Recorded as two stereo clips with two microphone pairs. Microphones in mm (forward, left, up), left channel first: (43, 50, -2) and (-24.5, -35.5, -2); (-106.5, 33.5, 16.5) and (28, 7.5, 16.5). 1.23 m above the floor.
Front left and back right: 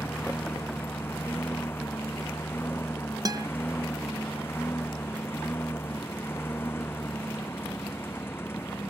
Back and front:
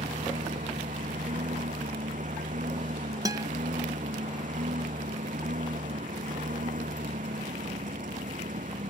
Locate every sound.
0.0 s a lawn mower: 20° right
3.2 s a guitar: 75° right